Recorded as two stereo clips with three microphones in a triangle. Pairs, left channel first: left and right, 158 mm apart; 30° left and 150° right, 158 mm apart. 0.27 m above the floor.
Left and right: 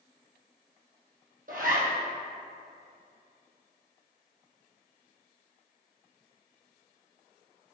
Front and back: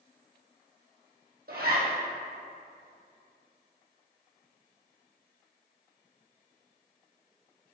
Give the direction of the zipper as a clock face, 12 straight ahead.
4 o'clock.